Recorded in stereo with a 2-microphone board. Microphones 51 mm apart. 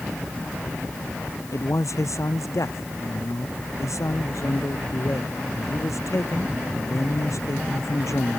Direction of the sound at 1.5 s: 75° left (ahead or behind).